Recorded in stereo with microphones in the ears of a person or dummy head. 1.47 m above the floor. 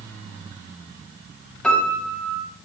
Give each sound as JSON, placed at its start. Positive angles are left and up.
{"t": 1.6, "sound": "a piano", "side_deg": 0, "distance_m": 0.7}